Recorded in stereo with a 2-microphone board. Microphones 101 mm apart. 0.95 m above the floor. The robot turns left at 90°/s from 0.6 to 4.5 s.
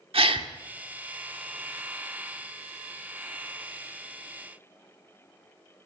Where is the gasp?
65° right (ahead or behind), 1.7 m.